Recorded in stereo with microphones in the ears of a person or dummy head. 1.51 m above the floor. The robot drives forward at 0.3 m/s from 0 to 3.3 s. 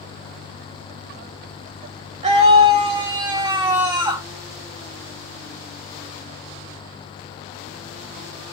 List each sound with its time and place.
2.2 s a scream: 30° right (ahead or behind), 0.9 m; by 4.2 s 25° right (ahead or behind), 1.2 m